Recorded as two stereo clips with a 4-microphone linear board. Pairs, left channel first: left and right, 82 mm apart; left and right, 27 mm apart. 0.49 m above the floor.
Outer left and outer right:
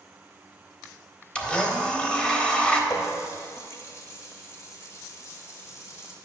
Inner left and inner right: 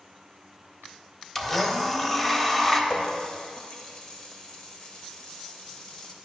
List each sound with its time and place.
1.4 s a blender: 15° left (ahead or behind), 0.9 m
2.9 s a running tap: 40° left (ahead or behind), 1.2 m